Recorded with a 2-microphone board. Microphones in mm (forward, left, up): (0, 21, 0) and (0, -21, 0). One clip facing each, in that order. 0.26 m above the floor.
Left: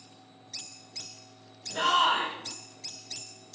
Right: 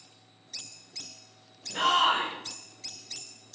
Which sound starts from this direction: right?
A shout, at 1.7 s.